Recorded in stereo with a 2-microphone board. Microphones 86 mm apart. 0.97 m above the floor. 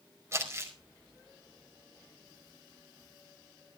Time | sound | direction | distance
0.3 | crumpling | 35° right (ahead or behind) | 4.5 m